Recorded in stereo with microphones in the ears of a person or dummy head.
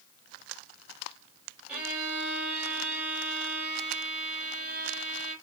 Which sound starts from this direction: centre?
A violin, at 1.7 s.